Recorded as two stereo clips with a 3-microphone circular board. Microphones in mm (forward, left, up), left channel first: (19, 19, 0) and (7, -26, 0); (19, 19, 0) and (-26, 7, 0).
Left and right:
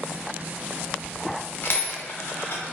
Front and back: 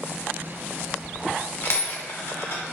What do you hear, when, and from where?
1.6 s a dropped coin: 45° left, 1.0 m